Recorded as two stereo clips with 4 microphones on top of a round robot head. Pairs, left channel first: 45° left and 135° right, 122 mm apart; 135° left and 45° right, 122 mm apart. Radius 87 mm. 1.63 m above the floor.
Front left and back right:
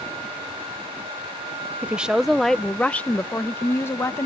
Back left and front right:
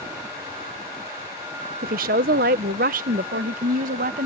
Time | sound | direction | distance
1.8 | a woman speaking | 55° right | ?